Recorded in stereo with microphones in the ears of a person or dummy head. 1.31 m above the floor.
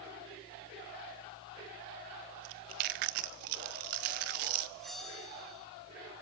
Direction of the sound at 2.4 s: 45° right (ahead or behind).